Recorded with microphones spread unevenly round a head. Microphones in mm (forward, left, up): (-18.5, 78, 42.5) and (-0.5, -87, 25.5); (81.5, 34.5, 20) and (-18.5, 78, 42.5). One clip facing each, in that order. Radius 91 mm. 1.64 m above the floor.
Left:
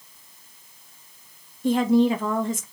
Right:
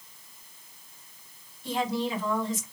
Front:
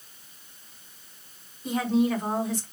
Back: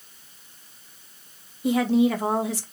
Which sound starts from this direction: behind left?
A woman speaking, at 1.6 s.